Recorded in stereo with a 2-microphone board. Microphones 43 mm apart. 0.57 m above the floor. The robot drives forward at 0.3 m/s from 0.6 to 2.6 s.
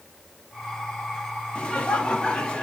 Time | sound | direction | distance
1.6 | laughter | 25° left (ahead or behind) | 1.0 m